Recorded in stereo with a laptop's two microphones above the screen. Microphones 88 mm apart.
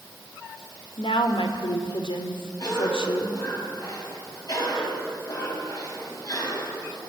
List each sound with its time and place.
1.0 s a woman speaking: 75° left (ahead or behind), 2.5 m
2.6 s a cough: 45° left (ahead or behind), 5.5 m